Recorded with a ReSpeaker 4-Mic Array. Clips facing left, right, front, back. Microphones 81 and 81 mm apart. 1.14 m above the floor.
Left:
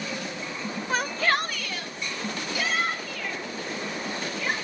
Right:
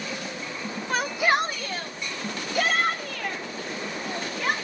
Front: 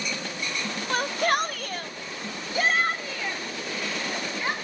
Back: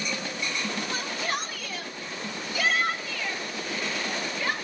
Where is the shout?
5° left, 0.9 m; by 4.5 s 60° right, 3.5 m.